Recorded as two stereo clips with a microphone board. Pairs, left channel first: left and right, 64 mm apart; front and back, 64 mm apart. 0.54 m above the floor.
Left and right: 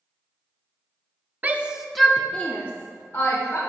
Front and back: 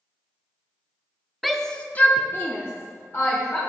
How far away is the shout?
About 0.7 m.